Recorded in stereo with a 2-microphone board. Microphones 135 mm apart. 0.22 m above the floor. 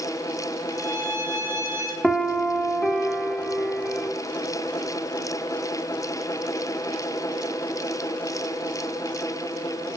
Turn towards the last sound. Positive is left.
turn(degrees=5)  # may be behind; listen again after turning